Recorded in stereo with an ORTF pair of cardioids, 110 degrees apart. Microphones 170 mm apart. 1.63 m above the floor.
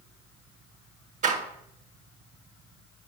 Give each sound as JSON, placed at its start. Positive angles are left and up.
{"t": 1.2, "sound": "a door slam", "azimuth_deg": -50, "distance_m": 1.6}